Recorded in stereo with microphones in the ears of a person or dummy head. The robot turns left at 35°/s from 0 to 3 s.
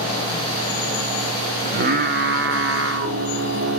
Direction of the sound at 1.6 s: 55° right.